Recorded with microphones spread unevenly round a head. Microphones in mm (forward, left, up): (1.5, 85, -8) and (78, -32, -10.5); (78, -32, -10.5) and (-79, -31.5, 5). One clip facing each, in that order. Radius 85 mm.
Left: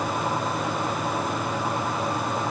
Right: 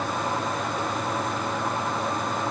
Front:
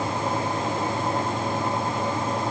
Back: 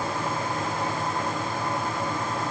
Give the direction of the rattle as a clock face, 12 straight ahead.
I don't hear a rattle.